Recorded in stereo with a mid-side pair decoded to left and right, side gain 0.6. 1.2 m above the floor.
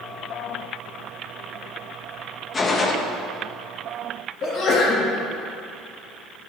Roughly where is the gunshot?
Ahead left.